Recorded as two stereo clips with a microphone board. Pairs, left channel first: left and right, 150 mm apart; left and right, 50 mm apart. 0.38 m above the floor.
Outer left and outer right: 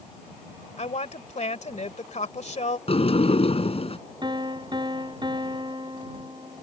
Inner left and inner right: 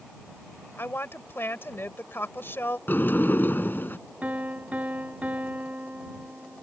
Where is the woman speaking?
50° left (ahead or behind).